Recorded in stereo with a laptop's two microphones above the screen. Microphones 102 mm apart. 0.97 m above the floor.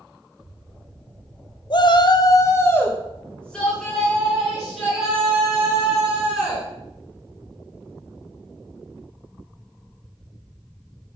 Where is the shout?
50° left (ahead or behind), 0.6 m; by 6.7 s 5° right (ahead or behind), 3 m.